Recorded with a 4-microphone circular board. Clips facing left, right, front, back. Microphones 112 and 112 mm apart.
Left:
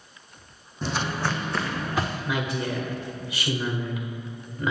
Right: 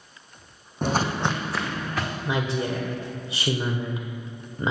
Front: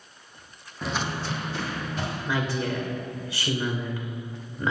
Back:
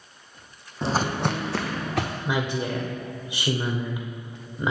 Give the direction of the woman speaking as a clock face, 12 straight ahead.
4 o'clock.